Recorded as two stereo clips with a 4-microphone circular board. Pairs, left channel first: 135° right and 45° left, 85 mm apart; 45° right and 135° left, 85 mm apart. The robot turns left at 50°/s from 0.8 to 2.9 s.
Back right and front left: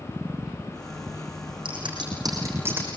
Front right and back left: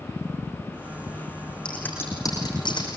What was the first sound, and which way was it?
Scissors, 35° left.